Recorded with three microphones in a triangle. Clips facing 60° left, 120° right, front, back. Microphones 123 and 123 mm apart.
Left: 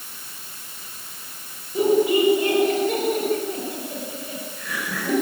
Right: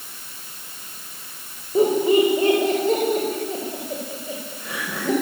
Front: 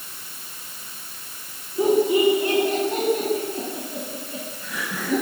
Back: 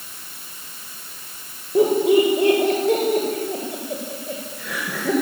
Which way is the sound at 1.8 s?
175° right.